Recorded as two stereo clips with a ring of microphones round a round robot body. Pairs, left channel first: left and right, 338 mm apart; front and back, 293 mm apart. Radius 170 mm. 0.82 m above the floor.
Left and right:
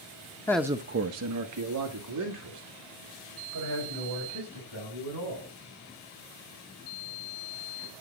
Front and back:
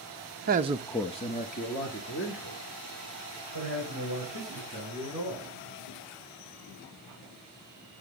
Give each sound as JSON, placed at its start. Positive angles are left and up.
{"t": 0.5, "sound": "a man speaking", "azimuth_deg": 165, "distance_m": 0.7}